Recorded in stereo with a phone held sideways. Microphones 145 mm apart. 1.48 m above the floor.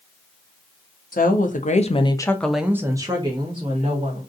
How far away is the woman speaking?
About 0.8 m.